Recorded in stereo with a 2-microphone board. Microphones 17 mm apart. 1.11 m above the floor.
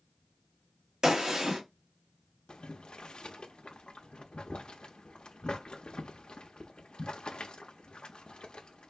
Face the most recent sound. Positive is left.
turn(degrees=80)